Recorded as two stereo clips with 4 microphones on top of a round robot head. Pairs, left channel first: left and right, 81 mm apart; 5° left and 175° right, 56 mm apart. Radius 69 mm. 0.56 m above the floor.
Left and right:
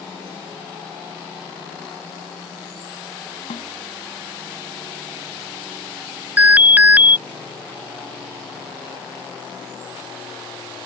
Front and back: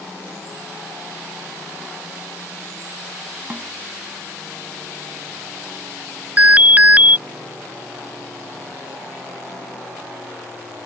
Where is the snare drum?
115° left.